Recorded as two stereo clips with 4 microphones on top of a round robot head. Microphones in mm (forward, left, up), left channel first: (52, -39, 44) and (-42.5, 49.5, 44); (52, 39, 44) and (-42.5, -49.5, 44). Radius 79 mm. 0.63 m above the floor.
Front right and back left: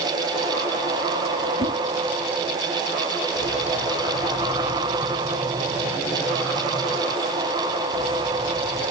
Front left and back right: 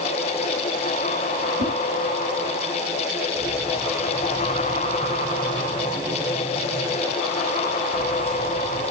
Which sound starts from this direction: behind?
A whoosh, at 1.6 s.